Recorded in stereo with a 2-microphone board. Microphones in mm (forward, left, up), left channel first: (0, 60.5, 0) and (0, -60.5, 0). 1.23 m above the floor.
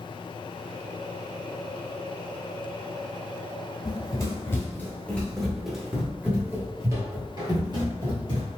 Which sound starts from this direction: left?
Running footsteps, at 3.9 s.